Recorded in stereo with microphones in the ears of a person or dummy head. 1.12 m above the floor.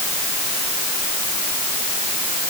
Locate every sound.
Only background noise.